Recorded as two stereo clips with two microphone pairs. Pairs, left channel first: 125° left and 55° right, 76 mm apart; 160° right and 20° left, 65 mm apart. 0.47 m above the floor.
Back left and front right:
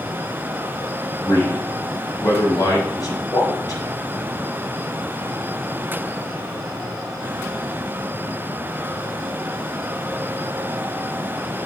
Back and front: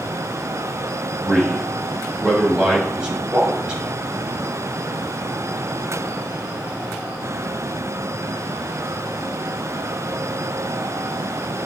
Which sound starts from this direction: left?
A man speaking, at 1.2 s.